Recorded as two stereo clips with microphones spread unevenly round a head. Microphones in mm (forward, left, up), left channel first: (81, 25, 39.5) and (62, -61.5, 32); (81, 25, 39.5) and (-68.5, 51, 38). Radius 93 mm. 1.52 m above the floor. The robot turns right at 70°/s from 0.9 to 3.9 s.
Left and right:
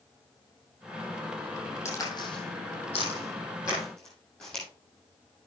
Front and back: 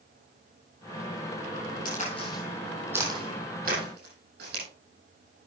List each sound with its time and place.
1.9 s a crack: 20° left, 9 m; by 4.6 s 165° left, 9 m